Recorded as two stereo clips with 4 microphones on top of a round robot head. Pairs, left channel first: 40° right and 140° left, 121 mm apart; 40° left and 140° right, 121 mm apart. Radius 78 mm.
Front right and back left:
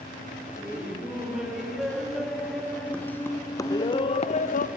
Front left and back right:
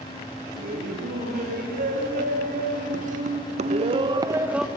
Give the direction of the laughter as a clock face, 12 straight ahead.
5 o'clock.